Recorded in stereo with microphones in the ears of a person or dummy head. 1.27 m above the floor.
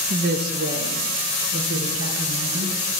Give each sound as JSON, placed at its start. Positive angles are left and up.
{"t": 0.1, "sound": "a woman speaking", "side_deg": -40, "distance_m": 0.6}